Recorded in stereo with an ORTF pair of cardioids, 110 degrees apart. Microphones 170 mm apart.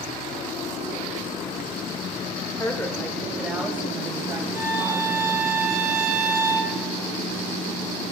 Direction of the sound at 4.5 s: 20° right.